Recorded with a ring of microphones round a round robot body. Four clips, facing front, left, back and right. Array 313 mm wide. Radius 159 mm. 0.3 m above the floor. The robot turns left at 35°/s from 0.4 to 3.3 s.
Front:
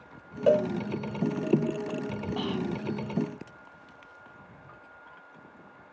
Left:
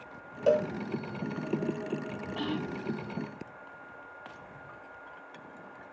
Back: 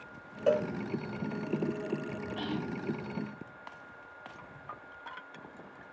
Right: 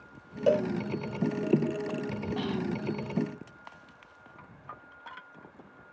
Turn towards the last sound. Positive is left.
turn(degrees=-60)